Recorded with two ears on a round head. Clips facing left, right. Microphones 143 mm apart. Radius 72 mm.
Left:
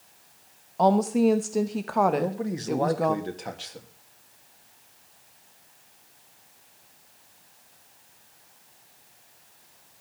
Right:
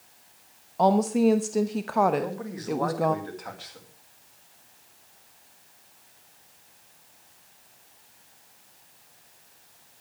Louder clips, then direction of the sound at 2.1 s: Left 3 dB; 30° left (ahead or behind).